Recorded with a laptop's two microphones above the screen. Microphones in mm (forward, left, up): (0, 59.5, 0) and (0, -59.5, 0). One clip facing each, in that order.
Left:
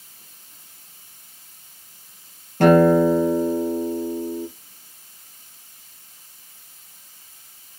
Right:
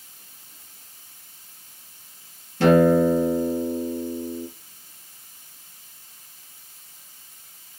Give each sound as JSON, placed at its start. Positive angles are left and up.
{"t": 2.6, "sound": "a guitar", "side_deg": 50, "distance_m": 4.0}